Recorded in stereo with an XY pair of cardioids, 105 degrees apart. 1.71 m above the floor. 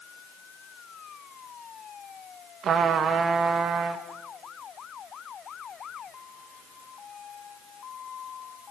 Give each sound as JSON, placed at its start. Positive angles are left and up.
{"t": 2.6, "sound": "a trumpet", "azimuth_deg": -60, "distance_m": 2.0}